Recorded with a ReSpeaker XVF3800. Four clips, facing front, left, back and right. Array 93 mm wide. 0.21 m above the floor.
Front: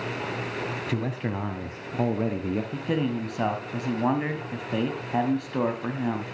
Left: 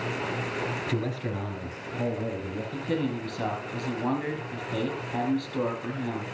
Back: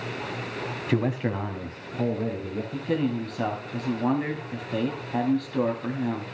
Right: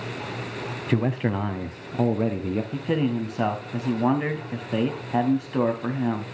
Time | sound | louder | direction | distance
0.9 | a man speaking | right 6 dB, back 8 dB | 130° right | 1.3 m
2.7 | a man speaking | right 2 dB, back 5 dB | 65° right | 1.8 m